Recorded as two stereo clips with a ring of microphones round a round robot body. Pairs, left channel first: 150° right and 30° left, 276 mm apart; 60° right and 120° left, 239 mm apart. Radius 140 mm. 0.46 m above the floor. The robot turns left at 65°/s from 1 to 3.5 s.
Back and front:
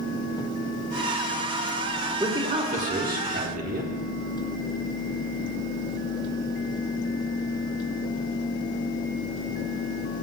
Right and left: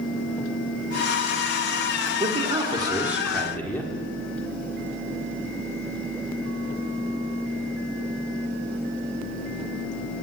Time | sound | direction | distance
2.2 | a man speaking | 100° left | 1.4 m